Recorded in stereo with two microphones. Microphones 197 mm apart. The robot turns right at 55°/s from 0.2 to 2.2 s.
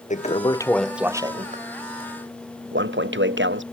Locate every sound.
0.1 s a toilet flushing: 140° left; by 3.6 s 110° right